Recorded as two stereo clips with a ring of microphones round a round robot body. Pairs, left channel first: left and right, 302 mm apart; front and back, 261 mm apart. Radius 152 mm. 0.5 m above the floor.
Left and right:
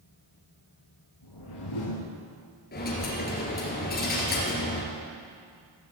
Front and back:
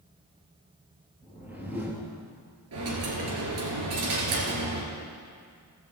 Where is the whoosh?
95° left, 2.5 m.